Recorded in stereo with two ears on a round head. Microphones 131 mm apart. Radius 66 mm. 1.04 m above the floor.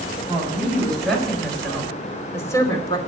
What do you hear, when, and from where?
0.3 s a woman speaking: 5° right (ahead or behind), 5.5 m; by 3.0 s 30° left (ahead or behind), 2.5 m